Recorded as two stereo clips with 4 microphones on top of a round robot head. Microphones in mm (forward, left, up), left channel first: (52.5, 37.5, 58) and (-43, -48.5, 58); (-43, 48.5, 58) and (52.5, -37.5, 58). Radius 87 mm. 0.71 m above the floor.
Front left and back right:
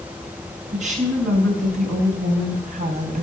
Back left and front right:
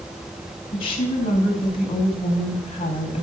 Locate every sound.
0.7 s a woman speaking: 170° right, 5.5 m